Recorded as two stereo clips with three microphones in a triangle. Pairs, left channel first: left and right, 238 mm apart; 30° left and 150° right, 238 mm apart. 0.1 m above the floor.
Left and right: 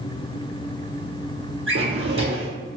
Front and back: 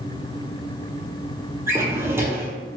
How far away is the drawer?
About 0.7 m.